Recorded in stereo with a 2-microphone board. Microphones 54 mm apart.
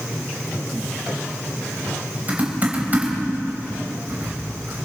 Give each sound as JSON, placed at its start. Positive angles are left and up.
{"t": 2.3, "sound": "typing on a keyboard", "side_deg": -30, "distance_m": 4.0}